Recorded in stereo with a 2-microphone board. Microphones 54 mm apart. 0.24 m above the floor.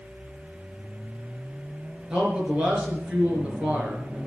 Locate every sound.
2.1 s a man speaking: 20° right (ahead or behind), 4 m